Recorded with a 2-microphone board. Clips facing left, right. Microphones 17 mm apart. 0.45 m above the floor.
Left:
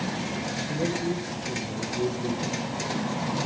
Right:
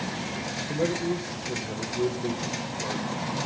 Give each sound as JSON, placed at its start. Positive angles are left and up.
{"t": 0.7, "sound": "a man speaking", "side_deg": -50, "distance_m": 2.0}